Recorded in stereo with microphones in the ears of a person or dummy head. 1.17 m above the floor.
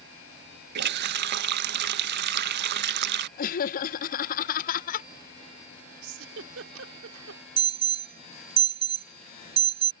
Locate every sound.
0.8 s a running tap: 55° right (ahead or behind)
3.4 s laughter: 45° left (ahead or behind)
6.0 s a giggle: 75° right (ahead or behind)
7.6 s an alarm: 30° right (ahead or behind)